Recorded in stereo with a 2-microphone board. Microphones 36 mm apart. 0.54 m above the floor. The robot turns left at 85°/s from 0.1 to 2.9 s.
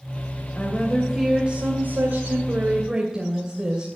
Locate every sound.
0.6 s a woman speaking: 30° left, 2.5 m; by 3.9 s 170° right, 2.5 m